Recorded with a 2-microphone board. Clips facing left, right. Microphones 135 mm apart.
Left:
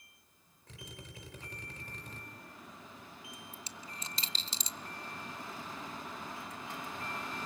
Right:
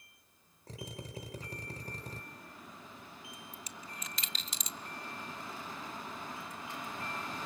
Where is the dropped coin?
30° left (ahead or behind), 0.9 m.